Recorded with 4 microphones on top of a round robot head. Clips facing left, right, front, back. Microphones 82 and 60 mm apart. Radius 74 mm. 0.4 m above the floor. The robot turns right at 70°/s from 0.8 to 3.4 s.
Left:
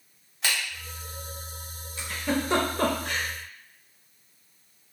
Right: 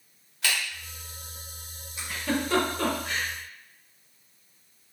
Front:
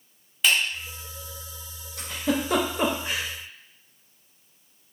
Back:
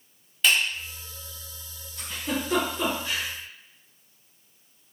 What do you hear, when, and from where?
0.4 s a finger snap: 85° left, 1.1 m
2.0 s a giggle: 15° right, 0.6 m; by 3.3 s 75° left, 0.6 m